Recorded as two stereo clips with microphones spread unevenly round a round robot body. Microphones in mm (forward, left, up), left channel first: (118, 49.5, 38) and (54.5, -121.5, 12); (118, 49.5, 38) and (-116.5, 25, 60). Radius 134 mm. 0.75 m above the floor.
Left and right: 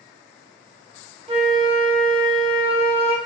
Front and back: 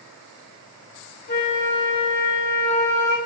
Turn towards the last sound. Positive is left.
turn(degrees=-50)